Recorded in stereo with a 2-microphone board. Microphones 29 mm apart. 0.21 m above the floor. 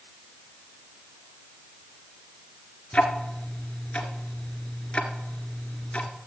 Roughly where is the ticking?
Left.